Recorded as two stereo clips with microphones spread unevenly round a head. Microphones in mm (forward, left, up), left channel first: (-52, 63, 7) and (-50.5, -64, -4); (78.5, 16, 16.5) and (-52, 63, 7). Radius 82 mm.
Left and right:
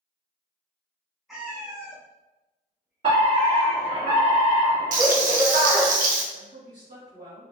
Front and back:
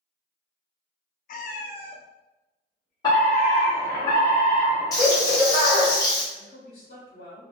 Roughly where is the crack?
No crack in this recording.